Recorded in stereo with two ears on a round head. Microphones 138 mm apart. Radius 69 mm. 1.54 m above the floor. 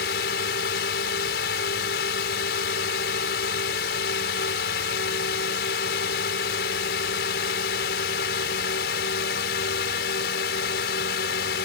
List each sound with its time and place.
0.0 s a drone: 70° left (ahead or behind)